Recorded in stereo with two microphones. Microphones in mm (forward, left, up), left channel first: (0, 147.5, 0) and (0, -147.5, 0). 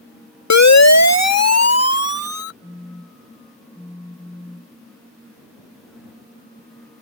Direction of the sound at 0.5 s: 70° left (ahead or behind).